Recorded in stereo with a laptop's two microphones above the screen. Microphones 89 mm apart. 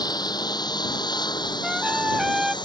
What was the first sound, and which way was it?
A lawn mower, 50° left (ahead or behind).